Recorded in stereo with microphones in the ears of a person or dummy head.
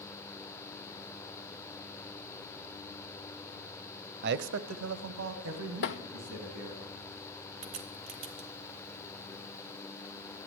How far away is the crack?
About 0.9 m.